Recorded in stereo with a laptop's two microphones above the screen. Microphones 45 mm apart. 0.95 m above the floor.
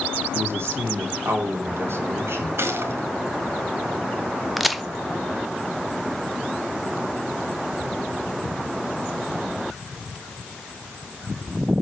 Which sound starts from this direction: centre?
A crack, at 4.6 s.